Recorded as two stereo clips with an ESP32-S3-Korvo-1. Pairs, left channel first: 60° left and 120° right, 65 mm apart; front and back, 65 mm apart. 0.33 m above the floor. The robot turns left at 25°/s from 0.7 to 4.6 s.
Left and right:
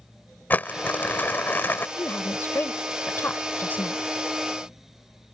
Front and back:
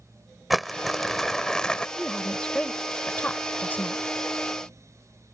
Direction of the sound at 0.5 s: 90° left.